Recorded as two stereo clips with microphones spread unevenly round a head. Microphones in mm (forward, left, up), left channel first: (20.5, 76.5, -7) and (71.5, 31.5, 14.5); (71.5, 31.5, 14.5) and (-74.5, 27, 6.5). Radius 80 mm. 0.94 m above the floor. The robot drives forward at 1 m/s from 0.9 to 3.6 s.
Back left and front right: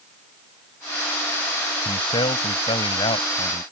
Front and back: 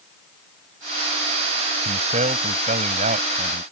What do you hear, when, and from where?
1.9 s a man speaking: 135° left; by 3.6 s 145° left